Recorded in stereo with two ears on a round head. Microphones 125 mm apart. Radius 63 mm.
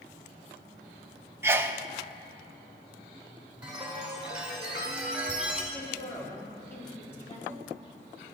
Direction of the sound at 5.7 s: 20° left (ahead or behind).